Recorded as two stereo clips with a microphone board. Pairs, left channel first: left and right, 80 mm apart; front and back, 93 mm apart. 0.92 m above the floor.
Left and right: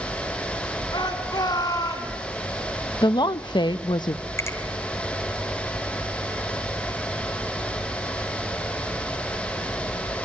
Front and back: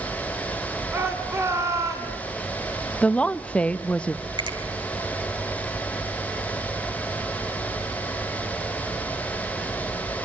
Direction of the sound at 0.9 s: 115° left.